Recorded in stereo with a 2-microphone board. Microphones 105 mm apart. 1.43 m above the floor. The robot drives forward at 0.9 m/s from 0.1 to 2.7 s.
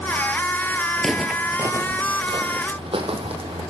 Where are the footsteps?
5° left (ahead or behind), 1.6 m; by 3.6 s 65° right (ahead or behind), 4 m.